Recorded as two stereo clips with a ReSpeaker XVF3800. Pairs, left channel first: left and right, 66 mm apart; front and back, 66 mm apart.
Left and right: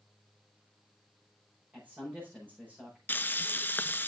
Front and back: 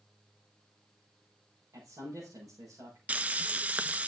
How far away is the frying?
About 0.5 m.